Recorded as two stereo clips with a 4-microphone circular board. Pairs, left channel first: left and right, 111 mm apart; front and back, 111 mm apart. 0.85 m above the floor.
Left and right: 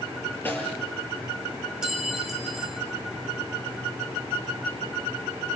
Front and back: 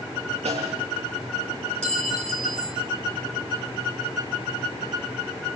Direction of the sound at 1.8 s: 175° right.